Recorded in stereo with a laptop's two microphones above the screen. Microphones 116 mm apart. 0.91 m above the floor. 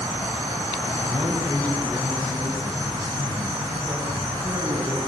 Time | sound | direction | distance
1.1 | a man speaking | 30° right (ahead or behind) | 6 m